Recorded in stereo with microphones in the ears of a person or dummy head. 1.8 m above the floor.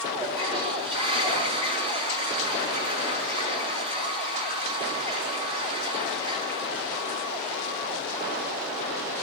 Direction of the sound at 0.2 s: 30° right (ahead or behind).